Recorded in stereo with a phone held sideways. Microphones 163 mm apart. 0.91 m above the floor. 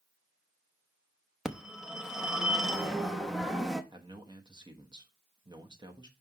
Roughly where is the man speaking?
Right.